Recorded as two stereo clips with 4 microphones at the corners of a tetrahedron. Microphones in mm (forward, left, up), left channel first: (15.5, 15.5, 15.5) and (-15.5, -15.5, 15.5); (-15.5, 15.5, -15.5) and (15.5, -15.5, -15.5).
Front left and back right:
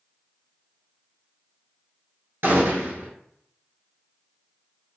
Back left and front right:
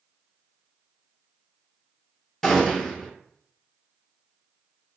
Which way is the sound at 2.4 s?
145° right.